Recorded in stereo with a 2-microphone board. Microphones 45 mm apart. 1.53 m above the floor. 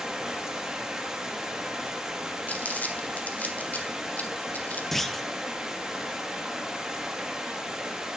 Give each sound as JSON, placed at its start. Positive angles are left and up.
{"t": 0.0, "sound": "running water", "side_deg": -15, "distance_m": 1.6}
{"t": 2.5, "sound": "crumpling", "side_deg": 40, "distance_m": 1.6}
{"t": 4.9, "sound": "a clunk", "side_deg": 5, "distance_m": 0.5}